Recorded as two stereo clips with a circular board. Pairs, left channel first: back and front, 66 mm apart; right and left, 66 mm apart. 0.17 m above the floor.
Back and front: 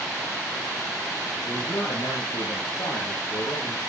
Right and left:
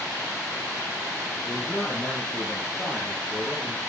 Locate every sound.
1.4 s a man speaking: 165° right, 4.5 m; by 3.8 s 175° right, 6 m